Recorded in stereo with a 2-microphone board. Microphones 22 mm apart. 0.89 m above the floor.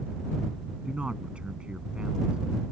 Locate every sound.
0.8 s a man speaking: 65° right (ahead or behind)